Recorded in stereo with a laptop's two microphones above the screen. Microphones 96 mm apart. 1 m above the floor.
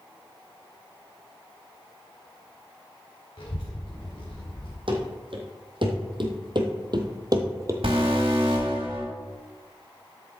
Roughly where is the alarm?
Right.